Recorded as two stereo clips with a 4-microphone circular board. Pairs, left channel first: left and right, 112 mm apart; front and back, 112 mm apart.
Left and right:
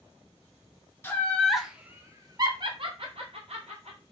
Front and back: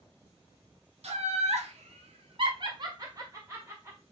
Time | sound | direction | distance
1.0 | laughter | 160° left | 0.7 m